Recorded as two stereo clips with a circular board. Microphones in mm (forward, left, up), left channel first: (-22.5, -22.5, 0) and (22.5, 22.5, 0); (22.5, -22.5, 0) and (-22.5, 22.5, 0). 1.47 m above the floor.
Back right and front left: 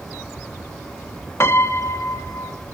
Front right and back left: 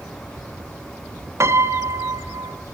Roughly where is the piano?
Behind.